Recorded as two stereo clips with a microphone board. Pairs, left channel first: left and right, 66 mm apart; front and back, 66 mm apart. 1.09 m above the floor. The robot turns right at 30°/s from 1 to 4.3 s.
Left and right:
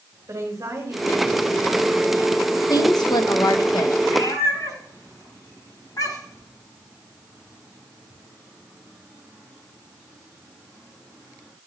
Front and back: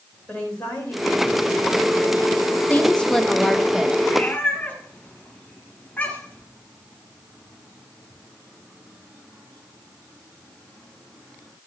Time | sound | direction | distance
0.3 | a woman speaking | 70° right | 3.5 m
2.7 | a woman speaking | 65° left | 0.9 m
4.0 | a cat meowing | 55° left | 3.5 m